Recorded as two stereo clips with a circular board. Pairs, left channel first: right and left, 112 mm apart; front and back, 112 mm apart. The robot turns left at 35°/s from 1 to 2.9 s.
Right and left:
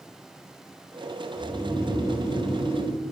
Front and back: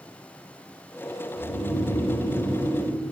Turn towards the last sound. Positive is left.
turn(degrees=-70)